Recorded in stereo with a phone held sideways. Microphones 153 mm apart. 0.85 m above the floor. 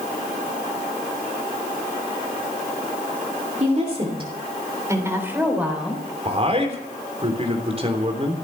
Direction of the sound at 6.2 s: 40° right (ahead or behind).